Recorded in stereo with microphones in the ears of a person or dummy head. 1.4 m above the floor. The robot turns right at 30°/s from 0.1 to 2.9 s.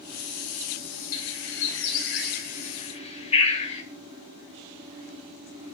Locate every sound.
1.1 s a bird: 65° left (ahead or behind), 2.0 m; by 3.8 s 30° left (ahead or behind), 2.0 m